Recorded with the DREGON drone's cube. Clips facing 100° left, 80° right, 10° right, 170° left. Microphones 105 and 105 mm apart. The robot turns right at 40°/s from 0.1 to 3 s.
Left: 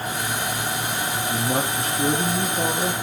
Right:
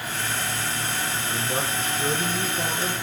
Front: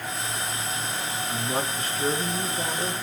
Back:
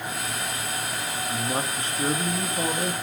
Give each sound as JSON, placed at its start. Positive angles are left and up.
{"t": 1.3, "sound": "a man speaking", "azimuth_deg": 80, "distance_m": 2.5}